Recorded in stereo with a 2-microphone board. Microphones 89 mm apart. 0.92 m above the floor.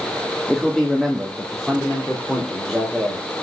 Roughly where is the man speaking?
Centre.